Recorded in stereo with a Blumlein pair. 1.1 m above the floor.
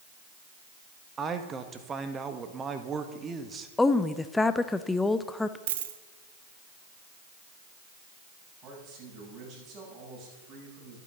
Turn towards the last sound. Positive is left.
turn(degrees=-30)